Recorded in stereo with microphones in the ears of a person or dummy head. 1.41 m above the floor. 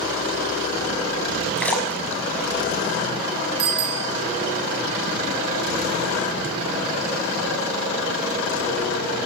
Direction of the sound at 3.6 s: 25° right (ahead or behind).